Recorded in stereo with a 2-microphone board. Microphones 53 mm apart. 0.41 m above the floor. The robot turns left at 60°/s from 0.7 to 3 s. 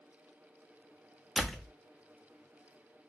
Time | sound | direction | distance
1.4 | a door slam | centre (ahead or behind) | 0.6 m